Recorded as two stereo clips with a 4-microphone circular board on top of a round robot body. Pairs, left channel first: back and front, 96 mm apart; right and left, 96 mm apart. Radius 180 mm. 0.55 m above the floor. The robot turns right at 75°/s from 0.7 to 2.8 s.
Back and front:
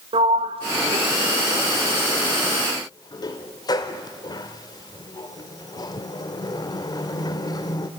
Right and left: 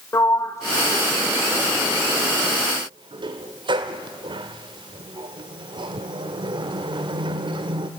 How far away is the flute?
I don't hear a flute.